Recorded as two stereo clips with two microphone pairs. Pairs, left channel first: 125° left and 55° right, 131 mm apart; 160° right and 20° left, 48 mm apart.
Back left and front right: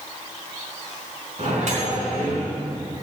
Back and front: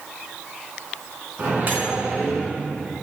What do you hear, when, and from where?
1.4 s a microwave: 30° right, 4.5 m